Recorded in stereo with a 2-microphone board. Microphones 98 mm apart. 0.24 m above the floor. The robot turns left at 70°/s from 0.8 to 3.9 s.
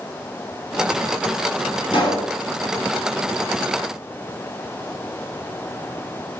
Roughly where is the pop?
Left.